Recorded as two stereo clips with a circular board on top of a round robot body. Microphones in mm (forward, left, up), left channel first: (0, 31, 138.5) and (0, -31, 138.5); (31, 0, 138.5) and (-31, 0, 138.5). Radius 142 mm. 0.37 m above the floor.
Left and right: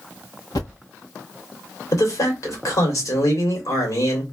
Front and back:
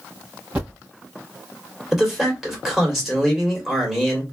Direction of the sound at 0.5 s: 110° left.